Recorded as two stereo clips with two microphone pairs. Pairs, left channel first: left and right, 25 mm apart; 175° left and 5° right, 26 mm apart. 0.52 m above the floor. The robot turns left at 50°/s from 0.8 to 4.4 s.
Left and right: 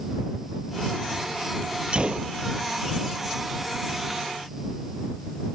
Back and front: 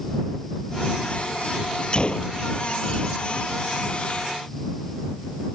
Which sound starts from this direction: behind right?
A gunshot, at 1.9 s.